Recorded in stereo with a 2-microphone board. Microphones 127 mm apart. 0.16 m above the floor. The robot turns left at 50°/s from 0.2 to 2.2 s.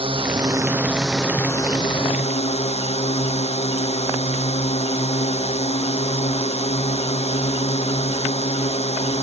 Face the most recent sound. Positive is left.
turn(degrees=125)